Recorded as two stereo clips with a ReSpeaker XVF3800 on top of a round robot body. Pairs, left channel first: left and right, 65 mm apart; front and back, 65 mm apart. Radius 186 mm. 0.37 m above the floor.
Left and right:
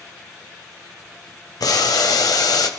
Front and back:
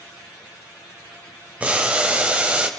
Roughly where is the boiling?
Left.